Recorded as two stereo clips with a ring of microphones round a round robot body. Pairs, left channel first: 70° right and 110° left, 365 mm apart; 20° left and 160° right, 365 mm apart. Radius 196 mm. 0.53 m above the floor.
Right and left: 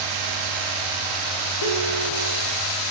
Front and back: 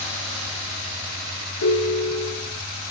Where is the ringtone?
30° right, 3 m.